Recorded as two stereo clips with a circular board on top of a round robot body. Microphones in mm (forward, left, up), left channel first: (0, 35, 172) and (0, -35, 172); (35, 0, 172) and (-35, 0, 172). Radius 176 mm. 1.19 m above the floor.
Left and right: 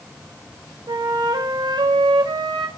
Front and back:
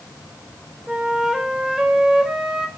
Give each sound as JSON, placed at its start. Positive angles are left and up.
{"t": 0.9, "sound": "a flute", "azimuth_deg": -100, "distance_m": 1.5}